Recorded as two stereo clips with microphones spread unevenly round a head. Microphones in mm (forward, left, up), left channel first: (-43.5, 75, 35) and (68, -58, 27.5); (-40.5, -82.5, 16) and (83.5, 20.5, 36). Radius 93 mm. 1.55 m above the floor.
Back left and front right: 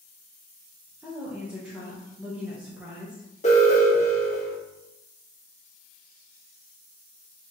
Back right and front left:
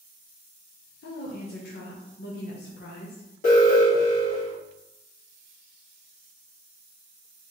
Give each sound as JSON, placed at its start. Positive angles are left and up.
{"t": 1.0, "sound": "a woman speaking", "azimuth_deg": -135, "distance_m": 1.0}
{"t": 3.4, "sound": "an alarm", "azimuth_deg": -175, "distance_m": 2.0}